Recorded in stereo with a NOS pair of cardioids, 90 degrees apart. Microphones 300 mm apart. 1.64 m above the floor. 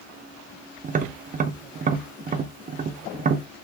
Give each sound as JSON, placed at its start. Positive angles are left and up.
{"t": 0.8, "sound": "tapping", "azimuth_deg": -30, "distance_m": 0.6}